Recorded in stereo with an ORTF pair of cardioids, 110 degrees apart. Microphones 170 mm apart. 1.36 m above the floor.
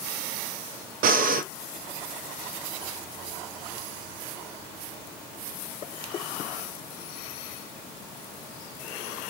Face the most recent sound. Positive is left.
turn(degrees=-55)